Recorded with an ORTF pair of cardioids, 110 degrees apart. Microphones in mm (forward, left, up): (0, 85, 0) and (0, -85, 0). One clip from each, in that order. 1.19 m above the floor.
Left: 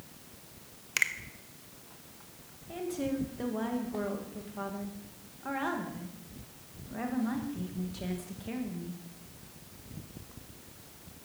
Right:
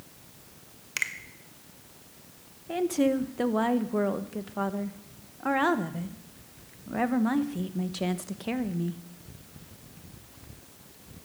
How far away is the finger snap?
About 0.9 m.